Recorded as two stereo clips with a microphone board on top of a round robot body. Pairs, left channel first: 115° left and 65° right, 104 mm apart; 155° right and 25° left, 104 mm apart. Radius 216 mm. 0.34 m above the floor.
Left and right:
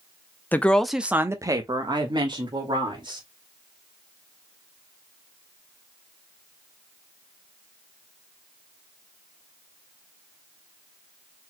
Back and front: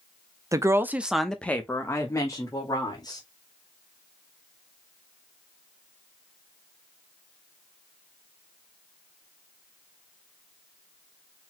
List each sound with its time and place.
0.5 s a woman speaking: 55° left, 1.1 m; by 3.2 s 105° right, 2.5 m